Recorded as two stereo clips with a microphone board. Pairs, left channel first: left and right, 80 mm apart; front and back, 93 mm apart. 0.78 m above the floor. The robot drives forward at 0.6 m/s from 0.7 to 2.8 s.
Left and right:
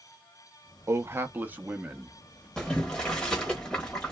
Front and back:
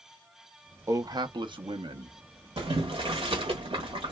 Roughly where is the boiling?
Behind.